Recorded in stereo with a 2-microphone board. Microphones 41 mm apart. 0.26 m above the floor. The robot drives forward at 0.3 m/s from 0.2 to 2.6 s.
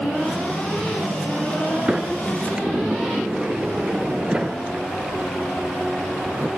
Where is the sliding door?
30° right (ahead or behind), 0.8 m; by 6.5 s 20° right (ahead or behind), 1.0 m.